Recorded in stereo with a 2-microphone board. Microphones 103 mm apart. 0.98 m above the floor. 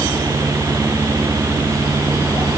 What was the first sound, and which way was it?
Only background noise.